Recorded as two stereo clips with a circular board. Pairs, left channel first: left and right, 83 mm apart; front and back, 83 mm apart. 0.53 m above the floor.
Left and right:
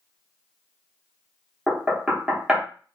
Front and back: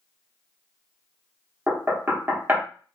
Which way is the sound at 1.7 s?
155° right.